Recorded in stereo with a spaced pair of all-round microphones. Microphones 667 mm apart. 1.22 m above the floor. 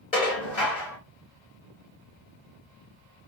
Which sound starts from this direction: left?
Dishes clattering, at 0.1 s.